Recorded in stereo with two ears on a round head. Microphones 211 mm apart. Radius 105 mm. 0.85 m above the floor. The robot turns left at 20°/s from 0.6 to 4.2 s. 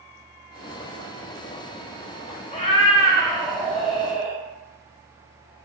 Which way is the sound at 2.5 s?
25° left.